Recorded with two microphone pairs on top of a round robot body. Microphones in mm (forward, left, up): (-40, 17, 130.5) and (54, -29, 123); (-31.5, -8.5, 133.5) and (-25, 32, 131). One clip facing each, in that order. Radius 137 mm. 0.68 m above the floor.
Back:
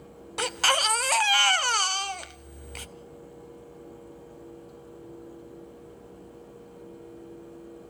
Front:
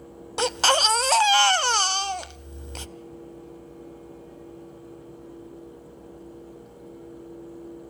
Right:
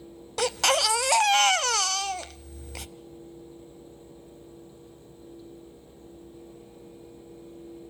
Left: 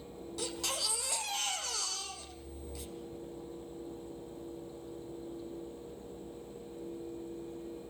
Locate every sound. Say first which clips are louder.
0.4 s a baby crying: front 5 dB, right 15 dB; 90° right, 0.7 m